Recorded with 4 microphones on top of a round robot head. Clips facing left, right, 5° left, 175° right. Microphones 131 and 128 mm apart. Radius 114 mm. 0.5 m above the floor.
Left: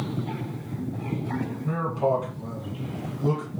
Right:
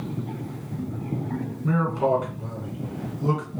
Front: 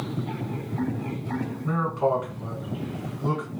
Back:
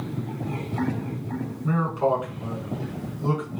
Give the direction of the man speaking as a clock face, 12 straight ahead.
3 o'clock.